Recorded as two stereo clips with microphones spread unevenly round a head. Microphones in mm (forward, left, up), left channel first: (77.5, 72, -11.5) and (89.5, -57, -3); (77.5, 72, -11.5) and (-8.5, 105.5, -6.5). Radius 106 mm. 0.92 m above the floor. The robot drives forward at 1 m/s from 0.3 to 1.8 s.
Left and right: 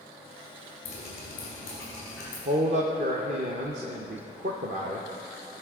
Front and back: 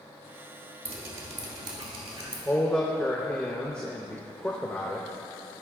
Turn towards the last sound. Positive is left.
turn(degrees=-95)